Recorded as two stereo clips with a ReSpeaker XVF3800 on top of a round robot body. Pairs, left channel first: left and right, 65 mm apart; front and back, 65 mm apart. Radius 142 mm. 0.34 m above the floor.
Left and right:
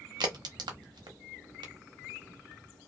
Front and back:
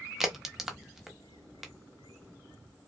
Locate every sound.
0.2 s a crack: 95° right, 0.6 m